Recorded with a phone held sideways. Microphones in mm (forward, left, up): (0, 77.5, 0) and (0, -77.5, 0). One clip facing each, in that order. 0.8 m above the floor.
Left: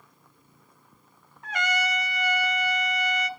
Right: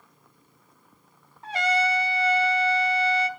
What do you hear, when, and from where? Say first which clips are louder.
1.4 s a trumpet: right 4 dB; 30° right (ahead or behind), 1.2 m